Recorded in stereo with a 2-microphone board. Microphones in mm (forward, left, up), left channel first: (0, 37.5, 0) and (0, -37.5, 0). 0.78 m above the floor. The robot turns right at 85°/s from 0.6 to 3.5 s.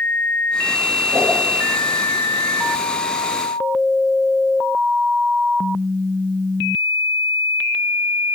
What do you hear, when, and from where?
1.1 s a whoosh: 40° right (ahead or behind), 9 m; by 1.4 s 20° right (ahead or behind), 9 m